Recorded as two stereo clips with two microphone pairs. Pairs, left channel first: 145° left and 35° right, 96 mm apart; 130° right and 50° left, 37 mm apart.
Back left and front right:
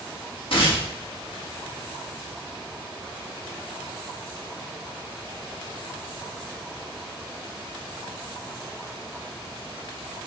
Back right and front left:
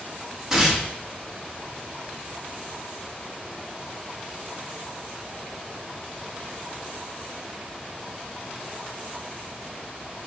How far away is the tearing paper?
About 1.9 m.